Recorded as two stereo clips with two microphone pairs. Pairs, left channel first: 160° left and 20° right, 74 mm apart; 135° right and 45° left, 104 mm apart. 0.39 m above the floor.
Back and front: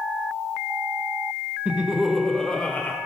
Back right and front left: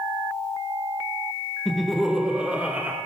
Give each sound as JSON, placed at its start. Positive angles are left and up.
{"t": 1.6, "sound": "laughter", "azimuth_deg": -55, "distance_m": 0.8}